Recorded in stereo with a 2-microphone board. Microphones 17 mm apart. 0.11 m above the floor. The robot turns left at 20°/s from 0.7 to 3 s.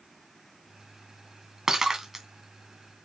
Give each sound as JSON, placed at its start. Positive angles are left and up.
{"t": 1.7, "sound": "breaking glass", "side_deg": -40, "distance_m": 2.5}